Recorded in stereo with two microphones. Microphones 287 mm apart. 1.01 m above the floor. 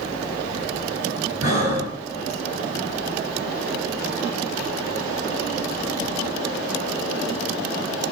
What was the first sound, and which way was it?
Breathing, 70° right (ahead or behind).